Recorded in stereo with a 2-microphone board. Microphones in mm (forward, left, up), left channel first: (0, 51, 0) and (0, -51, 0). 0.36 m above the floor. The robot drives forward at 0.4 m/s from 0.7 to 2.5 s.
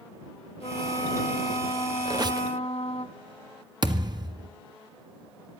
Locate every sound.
0.6 s a trumpet: 85° left, 2.5 m; by 3.0 s 80° left, 2.5 m
2.0 s a squeak: 40° right (ahead or behind), 0.5 m
3.8 s a thud: 45° right (ahead or behind), 1.8 m